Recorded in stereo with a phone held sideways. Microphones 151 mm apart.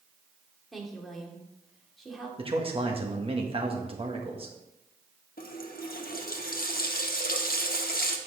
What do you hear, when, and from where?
0.7 s a woman speaking: centre (ahead or behind), 1.9 m
2.4 s a man speaking: 35° right (ahead or behind), 1.2 m
5.4 s a running tap: 65° left (ahead or behind), 0.9 m